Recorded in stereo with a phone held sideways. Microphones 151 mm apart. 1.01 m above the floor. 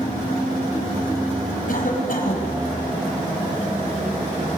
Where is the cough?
65° left (ahead or behind), 5.5 m.